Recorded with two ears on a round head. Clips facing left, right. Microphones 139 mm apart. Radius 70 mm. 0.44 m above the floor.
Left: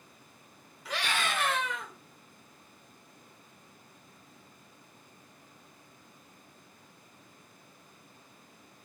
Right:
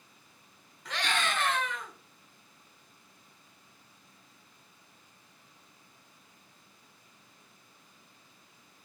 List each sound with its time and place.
0.8 s a scream: 5° left (ahead or behind), 1.1 m; by 1.9 s 10° left (ahead or behind), 0.9 m